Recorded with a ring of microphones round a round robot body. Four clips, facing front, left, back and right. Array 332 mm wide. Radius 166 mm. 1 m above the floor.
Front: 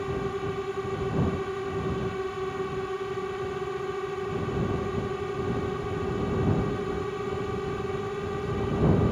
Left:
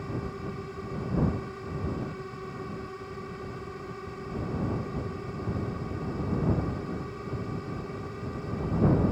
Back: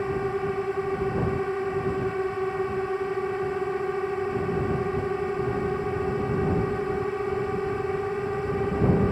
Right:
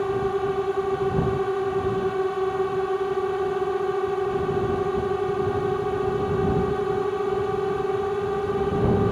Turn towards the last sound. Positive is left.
turn(degrees=-105)